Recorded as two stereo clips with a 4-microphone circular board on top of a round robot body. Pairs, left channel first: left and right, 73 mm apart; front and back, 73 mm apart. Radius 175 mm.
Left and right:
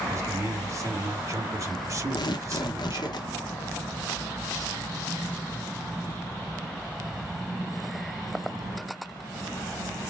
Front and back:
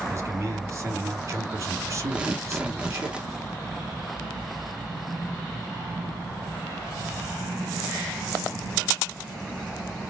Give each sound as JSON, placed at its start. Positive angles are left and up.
{"t": 0.1, "sound": "a man speaking", "azimuth_deg": -130, "distance_m": 2.0}
{"t": 2.1, "sound": "tearing paper", "azimuth_deg": 105, "distance_m": 1.0}